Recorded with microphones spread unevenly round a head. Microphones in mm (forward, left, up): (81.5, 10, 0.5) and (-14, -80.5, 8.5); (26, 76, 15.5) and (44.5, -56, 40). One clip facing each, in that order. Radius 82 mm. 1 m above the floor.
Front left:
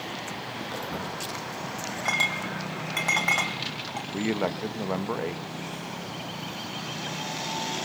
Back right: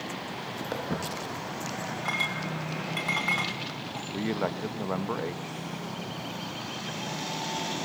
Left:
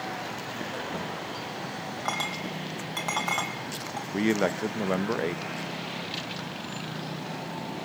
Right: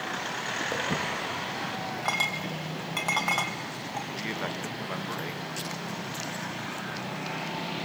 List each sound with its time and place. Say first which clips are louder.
0.7 s footsteps: back right 3 dB, right 5 dB; 105° right, 6 m
2.0 s a clink: front left 2 dB, left 2 dB; straight ahead, 3.5 m
4.1 s a man speaking: front left 2 dB, left 9 dB; 120° left, 0.9 m